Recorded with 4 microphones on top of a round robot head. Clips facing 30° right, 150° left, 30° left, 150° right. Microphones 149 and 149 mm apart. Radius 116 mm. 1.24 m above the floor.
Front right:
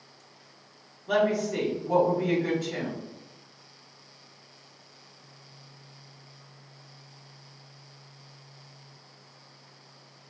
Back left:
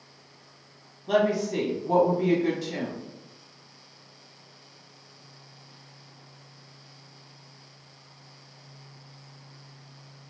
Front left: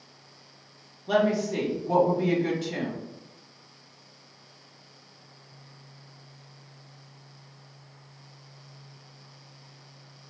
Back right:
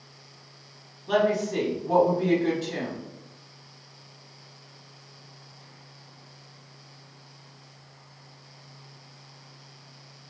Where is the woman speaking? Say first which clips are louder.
Back left 1 dB, even; 85° left, 1.5 m.